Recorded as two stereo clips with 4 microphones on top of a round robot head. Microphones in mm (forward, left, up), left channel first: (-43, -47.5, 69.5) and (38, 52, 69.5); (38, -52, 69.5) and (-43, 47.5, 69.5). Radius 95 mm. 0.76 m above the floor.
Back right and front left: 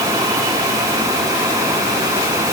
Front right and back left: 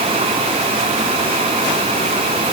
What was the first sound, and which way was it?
Only background noise.